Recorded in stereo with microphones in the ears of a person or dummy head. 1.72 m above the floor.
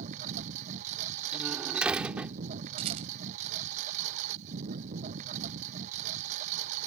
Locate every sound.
0.0 s a lawn mower: 40° right (ahead or behind)
1.3 s a door slam: 5° right (ahead or behind)
2.8 s a rattle: 35° right (ahead or behind)